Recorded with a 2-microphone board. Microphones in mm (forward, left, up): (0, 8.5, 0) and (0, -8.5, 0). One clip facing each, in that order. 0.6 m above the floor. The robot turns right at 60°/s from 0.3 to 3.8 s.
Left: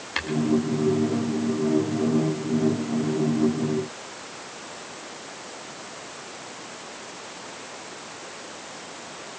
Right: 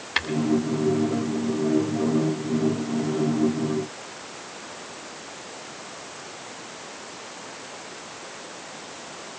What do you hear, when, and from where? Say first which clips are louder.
0.2 s tapping: right 4 dB; 10° right (ahead or behind), 1.3 m